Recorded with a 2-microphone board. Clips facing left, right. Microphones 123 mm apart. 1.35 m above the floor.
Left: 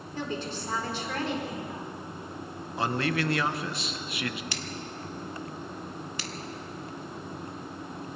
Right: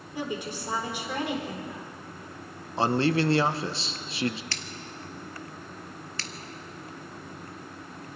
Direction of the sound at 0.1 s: 15° right (ahead or behind).